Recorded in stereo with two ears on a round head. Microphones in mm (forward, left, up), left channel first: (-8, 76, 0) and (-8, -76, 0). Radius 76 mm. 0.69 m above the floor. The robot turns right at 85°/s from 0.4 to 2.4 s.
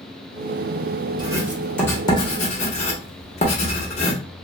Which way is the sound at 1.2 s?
25° right (ahead or behind).